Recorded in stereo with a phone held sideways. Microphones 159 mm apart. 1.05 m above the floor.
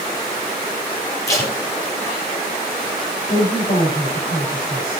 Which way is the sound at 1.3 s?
20° left (ahead or behind).